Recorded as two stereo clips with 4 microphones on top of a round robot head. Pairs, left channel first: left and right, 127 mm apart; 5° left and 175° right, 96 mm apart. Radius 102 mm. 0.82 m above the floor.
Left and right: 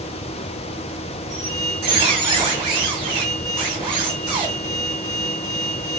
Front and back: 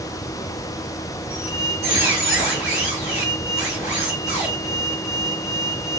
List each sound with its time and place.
1.3 s a squeak: 40° right, 2.5 m